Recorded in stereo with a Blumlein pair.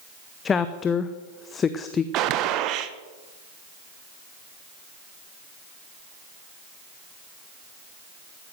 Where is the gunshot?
35° right, 1.2 m.